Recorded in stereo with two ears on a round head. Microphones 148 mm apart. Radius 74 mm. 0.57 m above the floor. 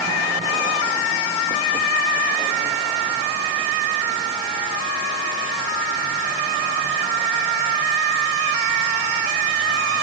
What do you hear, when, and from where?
Only background noise.